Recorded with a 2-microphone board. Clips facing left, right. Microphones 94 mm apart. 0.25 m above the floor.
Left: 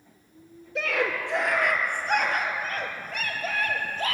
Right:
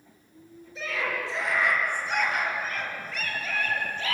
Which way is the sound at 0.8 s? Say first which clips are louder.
Left 4 dB; 60° left (ahead or behind).